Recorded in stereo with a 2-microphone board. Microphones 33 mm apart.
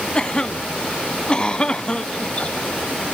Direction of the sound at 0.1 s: 25° left (ahead or behind).